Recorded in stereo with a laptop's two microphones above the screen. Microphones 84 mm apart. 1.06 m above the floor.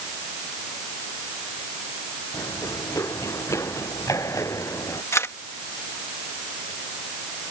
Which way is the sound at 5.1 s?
35° left (ahead or behind).